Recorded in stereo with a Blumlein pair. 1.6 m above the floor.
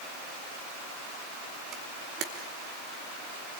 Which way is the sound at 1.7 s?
35° right.